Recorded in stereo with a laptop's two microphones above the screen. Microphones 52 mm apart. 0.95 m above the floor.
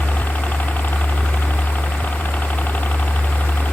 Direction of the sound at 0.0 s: 30° left (ahead or behind).